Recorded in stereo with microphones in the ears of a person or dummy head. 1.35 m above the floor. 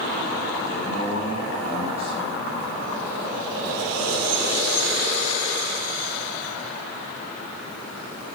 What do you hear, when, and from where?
0.7 s a man speaking: 70° left (ahead or behind), 3.5 m